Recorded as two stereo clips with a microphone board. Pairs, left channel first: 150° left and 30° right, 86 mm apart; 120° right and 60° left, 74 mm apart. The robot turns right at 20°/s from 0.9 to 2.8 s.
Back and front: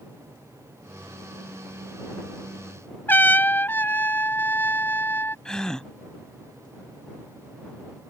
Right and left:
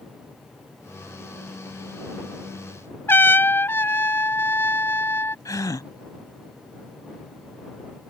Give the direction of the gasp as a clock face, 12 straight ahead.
4 o'clock.